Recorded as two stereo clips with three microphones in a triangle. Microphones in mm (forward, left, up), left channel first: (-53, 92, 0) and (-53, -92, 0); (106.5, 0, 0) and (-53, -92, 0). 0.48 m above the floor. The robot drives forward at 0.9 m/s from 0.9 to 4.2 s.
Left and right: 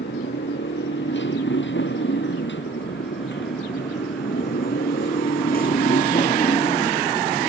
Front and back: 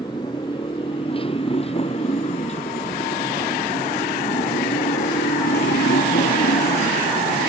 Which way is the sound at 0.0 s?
95° left.